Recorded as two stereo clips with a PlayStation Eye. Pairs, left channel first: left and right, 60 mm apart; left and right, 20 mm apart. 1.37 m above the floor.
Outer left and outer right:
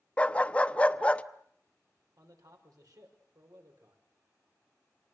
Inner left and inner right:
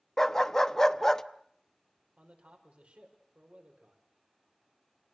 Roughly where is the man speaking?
Right.